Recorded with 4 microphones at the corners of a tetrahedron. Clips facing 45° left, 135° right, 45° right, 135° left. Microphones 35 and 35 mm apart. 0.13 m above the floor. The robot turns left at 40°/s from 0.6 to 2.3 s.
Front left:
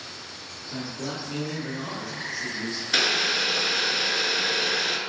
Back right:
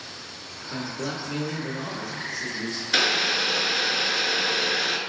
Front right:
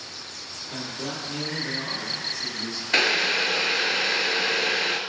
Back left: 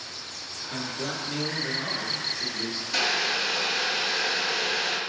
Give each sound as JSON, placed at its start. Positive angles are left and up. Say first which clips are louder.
{"t": 0.7, "sound": "a man speaking", "louder": "back right 2 dB, back left 1 dB", "azimuth_deg": -170, "distance_m": 1.2}
{"t": 2.9, "sound": "boiling", "louder": "back right 1 dB, front right 5 dB", "azimuth_deg": -55, "distance_m": 0.6}